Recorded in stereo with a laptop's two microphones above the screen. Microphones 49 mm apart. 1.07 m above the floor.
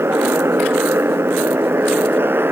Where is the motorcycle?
60° right (ahead or behind); by 2.5 s 50° right (ahead or behind).